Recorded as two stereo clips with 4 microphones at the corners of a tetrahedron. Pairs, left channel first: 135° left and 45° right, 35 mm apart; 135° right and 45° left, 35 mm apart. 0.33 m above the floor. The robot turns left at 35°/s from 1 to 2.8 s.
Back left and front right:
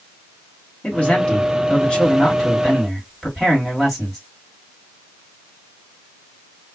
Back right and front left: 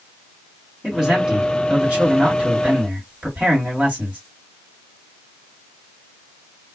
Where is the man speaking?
110° left, 2.0 m; by 4.2 s 50° left, 2.0 m.